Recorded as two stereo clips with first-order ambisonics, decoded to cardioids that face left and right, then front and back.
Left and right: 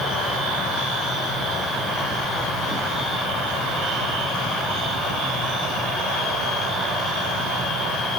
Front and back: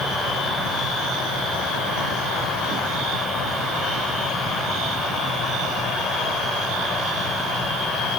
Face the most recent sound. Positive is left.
No sound to turn to.